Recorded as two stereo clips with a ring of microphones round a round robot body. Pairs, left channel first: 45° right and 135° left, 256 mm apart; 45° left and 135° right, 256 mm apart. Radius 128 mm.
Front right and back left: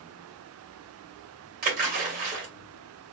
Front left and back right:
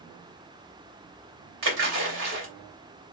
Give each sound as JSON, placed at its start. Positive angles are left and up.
{"t": 1.6, "sound": "a splash", "azimuth_deg": -175, "distance_m": 2.0}